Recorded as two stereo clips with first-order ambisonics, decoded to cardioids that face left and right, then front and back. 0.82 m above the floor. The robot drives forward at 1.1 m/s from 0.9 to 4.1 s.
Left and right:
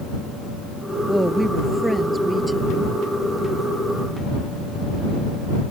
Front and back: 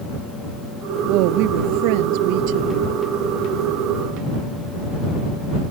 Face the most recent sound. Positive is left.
turn(degrees=-175)